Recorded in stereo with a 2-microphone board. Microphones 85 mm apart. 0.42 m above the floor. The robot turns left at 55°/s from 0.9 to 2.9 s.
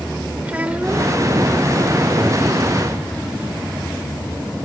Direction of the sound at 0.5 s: 20° right (ahead or behind).